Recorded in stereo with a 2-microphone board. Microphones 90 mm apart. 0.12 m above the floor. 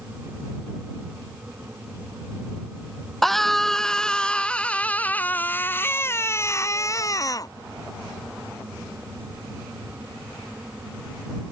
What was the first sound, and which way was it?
A scream, 5° left (ahead or behind).